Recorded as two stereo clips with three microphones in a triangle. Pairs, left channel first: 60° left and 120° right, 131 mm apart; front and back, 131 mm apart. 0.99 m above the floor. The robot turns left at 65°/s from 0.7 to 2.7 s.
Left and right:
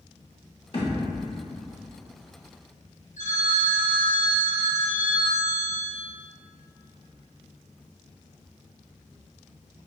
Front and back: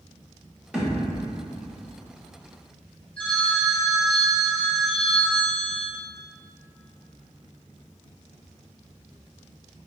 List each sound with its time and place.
0.7 s a thud: 100° left, 0.9 m; by 1.2 s 70° left, 0.9 m
3.2 s a phone ringing: 80° left, 0.9 m